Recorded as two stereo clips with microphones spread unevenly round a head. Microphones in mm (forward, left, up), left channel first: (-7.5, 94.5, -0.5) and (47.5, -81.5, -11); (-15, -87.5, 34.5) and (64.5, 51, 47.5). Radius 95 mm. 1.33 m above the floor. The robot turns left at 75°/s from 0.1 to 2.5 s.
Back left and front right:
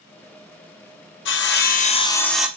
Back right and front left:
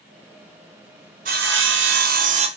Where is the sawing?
105° left, 0.6 m; by 2.5 s 10° left, 0.6 m.